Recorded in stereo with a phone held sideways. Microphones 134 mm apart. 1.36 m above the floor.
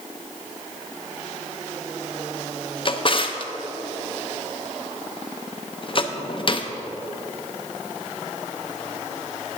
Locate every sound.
2.9 s a drawer: 40° left (ahead or behind), 0.5 m